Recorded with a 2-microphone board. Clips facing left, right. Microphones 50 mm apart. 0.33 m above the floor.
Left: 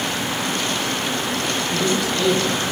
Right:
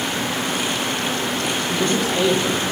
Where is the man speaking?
50° right (ahead or behind), 3.5 m.